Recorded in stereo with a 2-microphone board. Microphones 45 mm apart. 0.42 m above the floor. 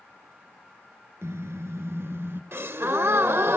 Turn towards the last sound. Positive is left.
turn(degrees=-65)  # may be behind; listen again after turning